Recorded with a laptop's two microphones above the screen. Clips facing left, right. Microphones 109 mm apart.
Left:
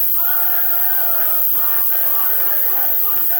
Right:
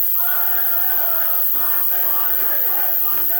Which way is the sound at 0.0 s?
75° left (ahead or behind).